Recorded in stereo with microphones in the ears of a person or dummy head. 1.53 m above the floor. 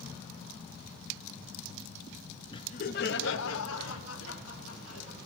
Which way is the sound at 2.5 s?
25° left (ahead or behind).